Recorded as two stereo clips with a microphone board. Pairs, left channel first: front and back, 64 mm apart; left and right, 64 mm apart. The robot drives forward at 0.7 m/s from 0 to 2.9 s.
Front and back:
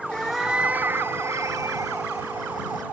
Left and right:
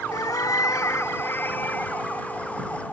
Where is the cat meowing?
75° left, 0.6 m; by 2.8 s 165° left, 1.9 m.